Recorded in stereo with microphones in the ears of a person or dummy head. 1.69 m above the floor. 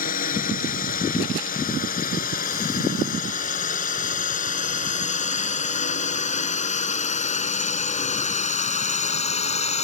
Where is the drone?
50° left (ahead or behind); by 9.8 s 40° left (ahead or behind).